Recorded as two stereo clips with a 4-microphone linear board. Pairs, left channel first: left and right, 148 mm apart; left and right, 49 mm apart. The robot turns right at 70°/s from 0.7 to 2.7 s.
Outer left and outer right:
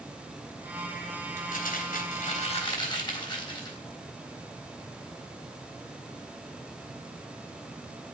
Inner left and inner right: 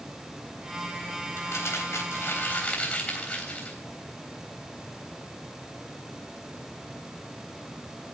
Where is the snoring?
I don't hear snoring.